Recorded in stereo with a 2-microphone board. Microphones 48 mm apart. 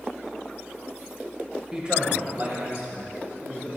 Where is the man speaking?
15° right (ahead or behind), 1.5 m; by 3.7 s 60° right (ahead or behind), 3 m.